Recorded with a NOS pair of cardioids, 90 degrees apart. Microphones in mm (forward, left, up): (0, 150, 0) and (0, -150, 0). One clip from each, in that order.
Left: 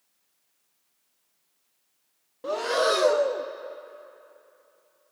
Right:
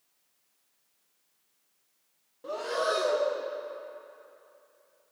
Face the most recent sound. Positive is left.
turn(degrees=35)